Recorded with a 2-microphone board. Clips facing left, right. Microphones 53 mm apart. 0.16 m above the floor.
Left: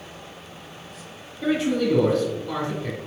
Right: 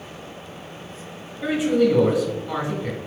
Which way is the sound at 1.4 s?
10° right (ahead or behind).